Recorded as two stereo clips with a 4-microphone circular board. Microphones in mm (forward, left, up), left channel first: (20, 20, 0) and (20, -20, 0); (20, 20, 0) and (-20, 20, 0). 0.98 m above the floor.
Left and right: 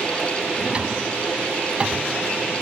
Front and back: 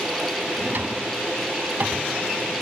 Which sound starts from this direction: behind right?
A drawer, at 0.6 s.